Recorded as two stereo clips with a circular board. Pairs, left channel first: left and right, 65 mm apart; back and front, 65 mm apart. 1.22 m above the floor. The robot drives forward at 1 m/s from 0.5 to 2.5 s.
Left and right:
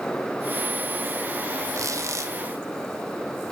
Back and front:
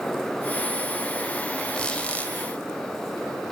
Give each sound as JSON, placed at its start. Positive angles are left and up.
{"t": 1.7, "sound": "a squeak", "azimuth_deg": -105, "distance_m": 2.0}